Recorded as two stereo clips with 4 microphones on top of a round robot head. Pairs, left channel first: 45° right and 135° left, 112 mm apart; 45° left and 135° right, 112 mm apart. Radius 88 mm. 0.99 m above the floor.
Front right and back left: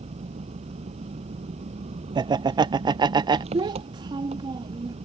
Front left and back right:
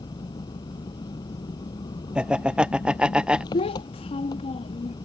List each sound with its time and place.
0.0 s an engine running: 100° left
2.1 s laughter: 145° left
3.5 s a child speaking: 85° left